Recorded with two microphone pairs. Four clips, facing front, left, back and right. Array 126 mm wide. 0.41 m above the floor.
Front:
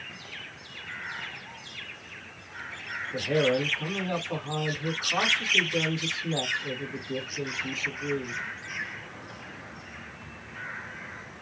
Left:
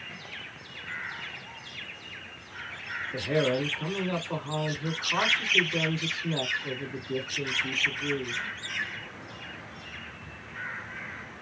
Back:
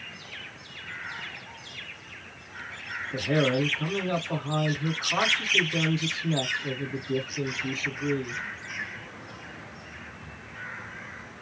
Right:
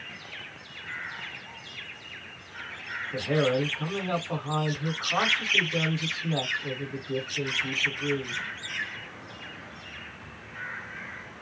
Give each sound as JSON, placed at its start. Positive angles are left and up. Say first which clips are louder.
{"t": 3.1, "sound": "a man speaking", "louder": "right 1 dB, even", "azimuth_deg": -115, "distance_m": 1.8}